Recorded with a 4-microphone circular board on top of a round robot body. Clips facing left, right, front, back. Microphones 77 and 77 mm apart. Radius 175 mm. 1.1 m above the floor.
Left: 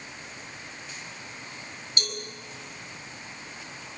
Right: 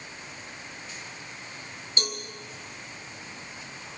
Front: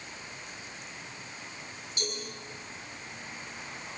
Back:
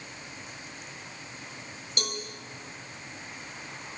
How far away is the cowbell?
About 5 m.